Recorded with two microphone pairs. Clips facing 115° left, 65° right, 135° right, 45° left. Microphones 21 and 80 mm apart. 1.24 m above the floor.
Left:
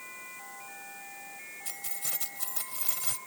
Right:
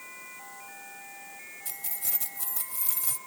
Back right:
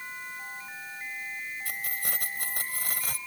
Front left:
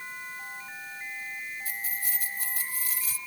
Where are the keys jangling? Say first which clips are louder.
Even, back right 1 dB; 165° right; by 3.2 s 175° right.